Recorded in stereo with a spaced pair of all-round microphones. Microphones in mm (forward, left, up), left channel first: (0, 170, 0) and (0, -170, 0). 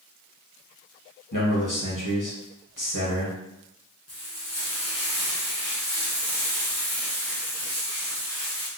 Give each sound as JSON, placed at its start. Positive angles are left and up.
{"t": 1.3, "sound": "a man speaking", "side_deg": 65, "distance_m": 1.1}
{"t": 4.1, "sound": "frying", "side_deg": 45, "distance_m": 1.0}